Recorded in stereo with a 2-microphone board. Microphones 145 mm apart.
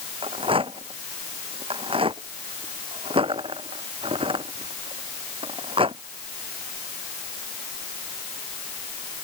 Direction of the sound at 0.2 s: 40° right (ahead or behind).